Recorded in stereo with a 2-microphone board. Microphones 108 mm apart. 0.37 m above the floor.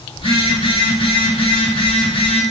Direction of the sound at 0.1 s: 60° left (ahead or behind).